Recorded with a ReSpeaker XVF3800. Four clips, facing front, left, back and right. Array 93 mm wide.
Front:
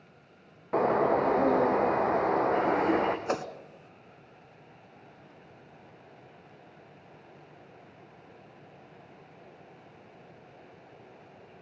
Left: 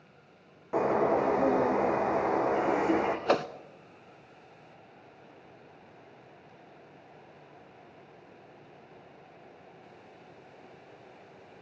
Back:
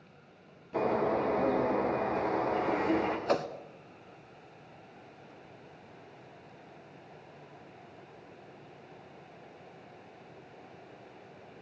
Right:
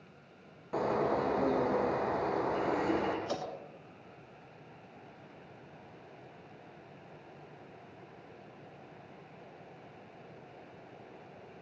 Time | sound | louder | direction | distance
0.7 | a bird | left 5 dB, front 4 dB | 25° left | 4.5 m
3.3 | a whoosh | left 10 dB, back 2 dB | 80° left | 1.3 m